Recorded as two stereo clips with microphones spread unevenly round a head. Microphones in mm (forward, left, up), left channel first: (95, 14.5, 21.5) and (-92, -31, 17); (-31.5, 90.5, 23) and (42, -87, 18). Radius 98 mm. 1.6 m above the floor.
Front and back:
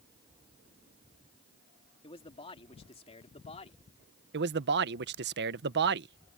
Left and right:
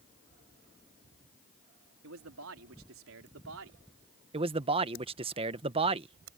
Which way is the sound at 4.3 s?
130° right.